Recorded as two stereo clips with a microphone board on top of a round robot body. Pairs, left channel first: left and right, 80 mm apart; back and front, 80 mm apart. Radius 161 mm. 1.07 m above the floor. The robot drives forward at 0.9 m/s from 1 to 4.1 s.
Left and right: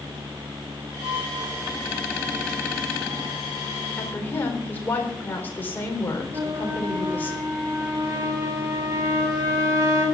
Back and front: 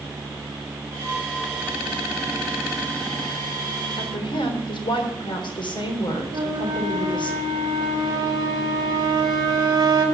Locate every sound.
4.0 s a woman speaking: 155° left, 3.5 m
6.3 s a flute: 45° right, 3.5 m